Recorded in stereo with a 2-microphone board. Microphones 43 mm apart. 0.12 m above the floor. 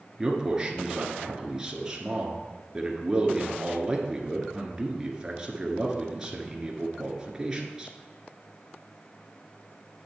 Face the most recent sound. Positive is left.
turn(degrees=-15)  # may be behind; listen again after turning